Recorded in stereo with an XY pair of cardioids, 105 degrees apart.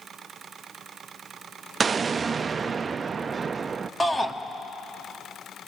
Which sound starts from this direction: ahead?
A shout, at 4.0 s.